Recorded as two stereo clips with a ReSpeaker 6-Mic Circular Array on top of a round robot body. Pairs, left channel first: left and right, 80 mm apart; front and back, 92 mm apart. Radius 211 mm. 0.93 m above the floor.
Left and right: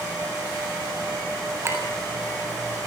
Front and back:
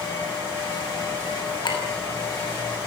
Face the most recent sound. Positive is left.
turn(degrees=-35)